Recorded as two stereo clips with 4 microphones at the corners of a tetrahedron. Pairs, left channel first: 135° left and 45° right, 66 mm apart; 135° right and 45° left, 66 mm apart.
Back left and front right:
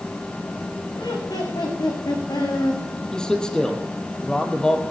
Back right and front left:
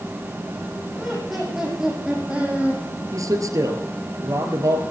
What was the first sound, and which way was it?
Laughter, 135° left.